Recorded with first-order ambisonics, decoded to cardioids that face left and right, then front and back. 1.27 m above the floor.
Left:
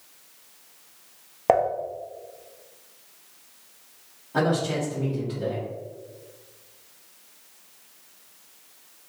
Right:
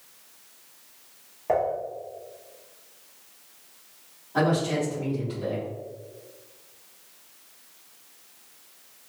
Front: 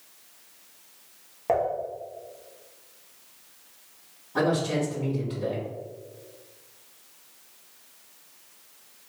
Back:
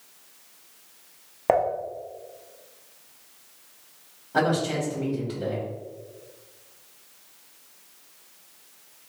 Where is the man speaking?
145° left, 1.8 m.